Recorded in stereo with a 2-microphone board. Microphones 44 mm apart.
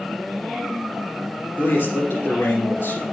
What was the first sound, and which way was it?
A man speaking, 70° left (ahead or behind).